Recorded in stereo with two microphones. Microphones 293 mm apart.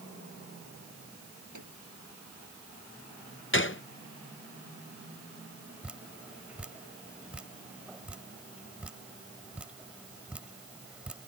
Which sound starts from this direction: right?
A microwave, at 1.5 s.